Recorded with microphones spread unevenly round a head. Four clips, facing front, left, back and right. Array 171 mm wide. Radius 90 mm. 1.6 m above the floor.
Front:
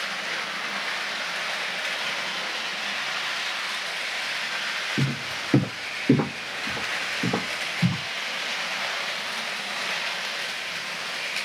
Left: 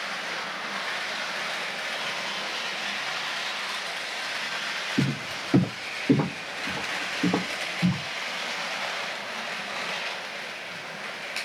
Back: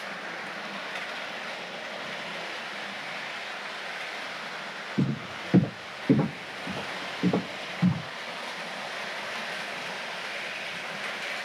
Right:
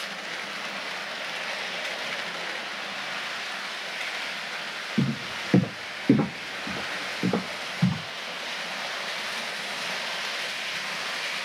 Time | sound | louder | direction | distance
5.0 | footsteps | right 1 dB, back 2 dB | 40° right | 1.9 m